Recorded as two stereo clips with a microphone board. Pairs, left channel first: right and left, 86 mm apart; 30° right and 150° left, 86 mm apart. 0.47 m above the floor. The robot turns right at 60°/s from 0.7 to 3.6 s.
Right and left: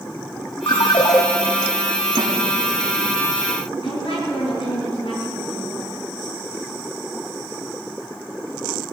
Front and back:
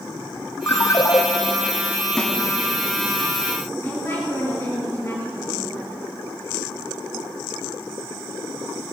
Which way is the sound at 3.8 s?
85° right.